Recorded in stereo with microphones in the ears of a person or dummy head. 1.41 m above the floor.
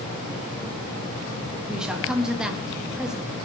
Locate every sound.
1.7 s a woman speaking: 5° right (ahead or behind), 2 m